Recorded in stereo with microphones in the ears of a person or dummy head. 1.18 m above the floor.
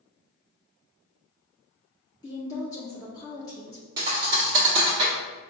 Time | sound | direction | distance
2.2 | a woman speaking | 20° left (ahead or behind) | 0.6 m
4.0 | a thud | 20° right (ahead or behind) | 0.7 m